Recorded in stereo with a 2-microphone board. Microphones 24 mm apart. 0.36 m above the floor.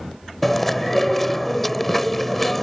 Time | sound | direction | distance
0.4 | chewing | 10° left (ahead or behind) | ?